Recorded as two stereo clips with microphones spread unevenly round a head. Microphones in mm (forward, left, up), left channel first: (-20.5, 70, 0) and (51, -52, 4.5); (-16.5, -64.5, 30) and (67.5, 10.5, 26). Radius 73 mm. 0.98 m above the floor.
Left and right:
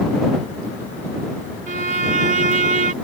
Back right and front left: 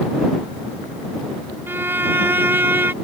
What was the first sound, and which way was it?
A violin, 30° right.